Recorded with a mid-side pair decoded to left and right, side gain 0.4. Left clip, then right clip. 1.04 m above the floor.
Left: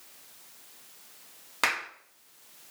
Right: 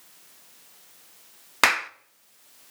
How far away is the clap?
About 0.8 m.